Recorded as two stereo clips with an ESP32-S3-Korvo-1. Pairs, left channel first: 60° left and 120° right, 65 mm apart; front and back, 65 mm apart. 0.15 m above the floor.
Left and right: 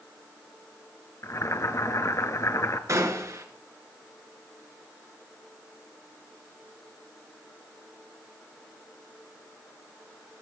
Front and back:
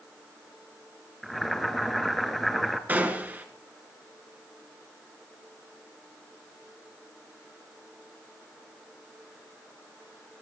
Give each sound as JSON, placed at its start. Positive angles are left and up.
{"t": 1.2, "sound": "boiling", "azimuth_deg": 90, "distance_m": 1.0}
{"t": 2.9, "sound": "a gunshot", "azimuth_deg": -125, "distance_m": 1.6}